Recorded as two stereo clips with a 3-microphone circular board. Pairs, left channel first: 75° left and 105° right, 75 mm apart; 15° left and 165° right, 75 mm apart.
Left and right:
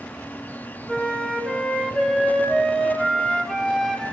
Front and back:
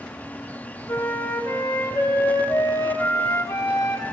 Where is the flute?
5° right, 1.1 m.